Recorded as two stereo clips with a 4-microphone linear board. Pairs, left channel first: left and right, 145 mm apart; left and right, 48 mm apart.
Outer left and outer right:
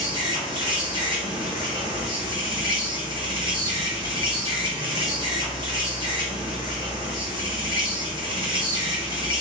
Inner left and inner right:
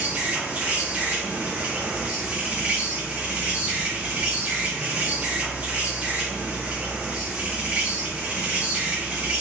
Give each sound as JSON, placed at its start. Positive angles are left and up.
{"t": 0.0, "sound": "an insect", "side_deg": -30, "distance_m": 0.9}